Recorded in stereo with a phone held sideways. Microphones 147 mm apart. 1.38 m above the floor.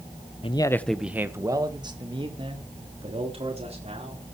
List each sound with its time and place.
0.4 s a man speaking: 40° left (ahead or behind), 0.7 m; by 4.2 s 45° right (ahead or behind), 4.5 m